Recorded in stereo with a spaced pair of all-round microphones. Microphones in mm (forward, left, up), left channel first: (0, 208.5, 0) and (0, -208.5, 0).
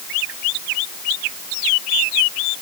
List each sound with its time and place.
Only background noise.